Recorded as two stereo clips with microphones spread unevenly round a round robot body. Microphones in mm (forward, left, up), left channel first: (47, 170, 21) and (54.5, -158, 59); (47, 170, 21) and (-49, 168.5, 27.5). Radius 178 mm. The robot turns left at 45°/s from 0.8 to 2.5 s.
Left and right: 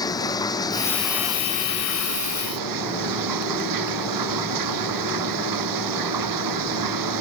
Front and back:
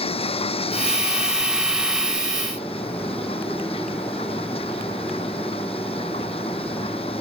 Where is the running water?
10° left; by 7.2 s 65° right.